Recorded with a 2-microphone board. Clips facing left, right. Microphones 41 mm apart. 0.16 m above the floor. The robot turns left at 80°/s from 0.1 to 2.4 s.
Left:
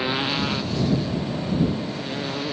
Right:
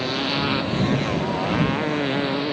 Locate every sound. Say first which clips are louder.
0.0 s a motorcycle: right 1 dB; 15° left (ahead or behind); by 2.5 s 10° right (ahead or behind)